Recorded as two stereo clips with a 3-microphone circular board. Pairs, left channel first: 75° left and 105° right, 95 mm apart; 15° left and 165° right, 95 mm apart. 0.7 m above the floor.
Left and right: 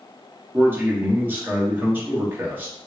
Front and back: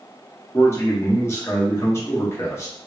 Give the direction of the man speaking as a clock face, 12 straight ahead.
1 o'clock.